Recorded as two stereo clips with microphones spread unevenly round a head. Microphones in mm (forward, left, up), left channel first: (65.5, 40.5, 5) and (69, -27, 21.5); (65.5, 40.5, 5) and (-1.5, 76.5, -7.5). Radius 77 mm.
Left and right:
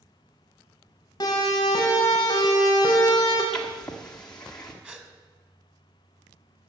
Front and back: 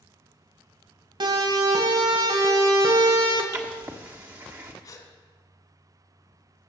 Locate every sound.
1.2 s a siren: 150° left, 3.5 m
3.5 s writing: 170° right, 1.3 m
4.8 s a gasp: 30° right, 2.5 m